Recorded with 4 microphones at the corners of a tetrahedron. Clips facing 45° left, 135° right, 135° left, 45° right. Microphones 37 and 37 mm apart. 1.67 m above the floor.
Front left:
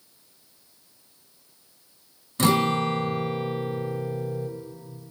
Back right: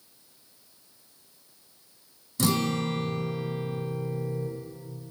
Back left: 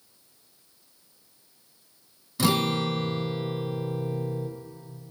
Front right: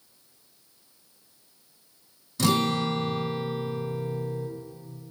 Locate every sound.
2.4 s a guitar: 70° left, 1.1 m